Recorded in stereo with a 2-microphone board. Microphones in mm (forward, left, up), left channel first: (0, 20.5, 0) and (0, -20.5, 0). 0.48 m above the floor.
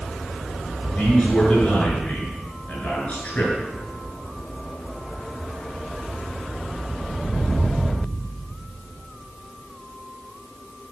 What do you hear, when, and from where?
1.0 s a man speaking: 35° left (ahead or behind), 7.5 m